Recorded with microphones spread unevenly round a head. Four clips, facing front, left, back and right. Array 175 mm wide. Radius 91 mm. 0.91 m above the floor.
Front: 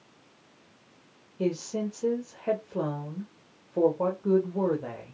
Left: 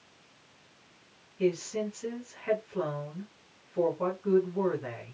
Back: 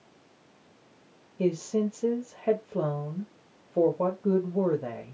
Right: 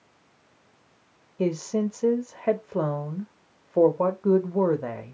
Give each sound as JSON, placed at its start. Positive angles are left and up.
{"t": 1.4, "sound": "a woman speaking", "azimuth_deg": -115, "distance_m": 1.0}